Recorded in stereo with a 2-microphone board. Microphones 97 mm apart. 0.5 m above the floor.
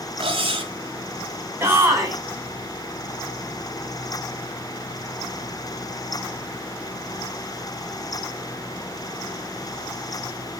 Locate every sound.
0.2 s cutlery clinking: 70° right (ahead or behind), 1.4 m
1.6 s a shout: 25° right (ahead or behind), 4 m